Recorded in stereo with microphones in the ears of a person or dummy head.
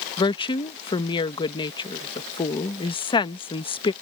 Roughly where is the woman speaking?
Left.